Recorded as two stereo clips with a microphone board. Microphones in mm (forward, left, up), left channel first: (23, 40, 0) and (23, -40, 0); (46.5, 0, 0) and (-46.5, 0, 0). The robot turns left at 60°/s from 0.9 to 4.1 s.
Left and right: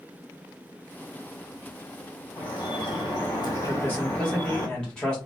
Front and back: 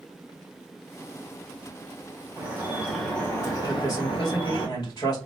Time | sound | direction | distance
2.4 | dripping | 125° left | 1.9 m
3.7 | a man speaking | 45° left | 1.8 m